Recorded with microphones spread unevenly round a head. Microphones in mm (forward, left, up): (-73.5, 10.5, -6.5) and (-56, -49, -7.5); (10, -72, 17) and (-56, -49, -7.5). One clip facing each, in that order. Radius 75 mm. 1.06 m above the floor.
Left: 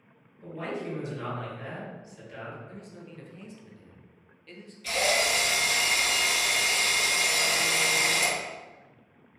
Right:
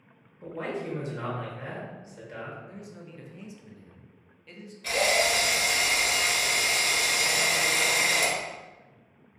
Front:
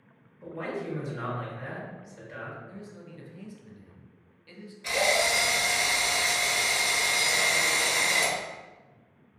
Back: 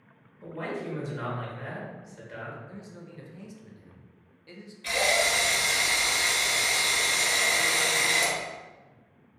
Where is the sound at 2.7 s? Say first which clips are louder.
Right 1 dB, even; 155° right, 0.6 m.